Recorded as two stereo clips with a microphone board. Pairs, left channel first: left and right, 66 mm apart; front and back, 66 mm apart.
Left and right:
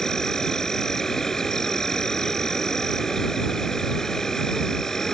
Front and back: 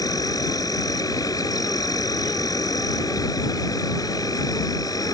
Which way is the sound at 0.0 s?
10° left.